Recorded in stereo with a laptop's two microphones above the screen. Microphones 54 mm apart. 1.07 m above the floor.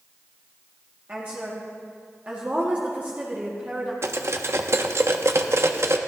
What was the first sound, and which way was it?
A woman speaking, 30° right (ahead or behind).